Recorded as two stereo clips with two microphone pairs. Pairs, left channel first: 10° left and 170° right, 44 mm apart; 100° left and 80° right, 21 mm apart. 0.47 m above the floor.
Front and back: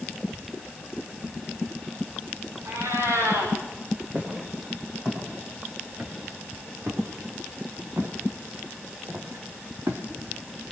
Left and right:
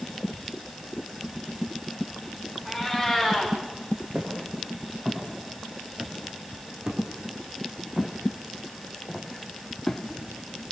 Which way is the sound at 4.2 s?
115° right.